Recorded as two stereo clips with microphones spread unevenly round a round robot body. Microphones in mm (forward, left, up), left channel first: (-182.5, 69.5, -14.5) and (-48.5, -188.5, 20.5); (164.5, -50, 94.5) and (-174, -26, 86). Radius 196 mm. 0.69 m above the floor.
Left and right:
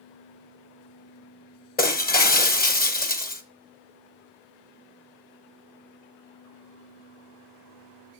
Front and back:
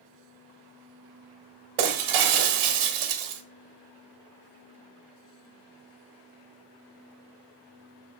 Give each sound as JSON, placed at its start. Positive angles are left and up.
{"t": 1.8, "sound": "breaking glass", "azimuth_deg": 180, "distance_m": 1.4}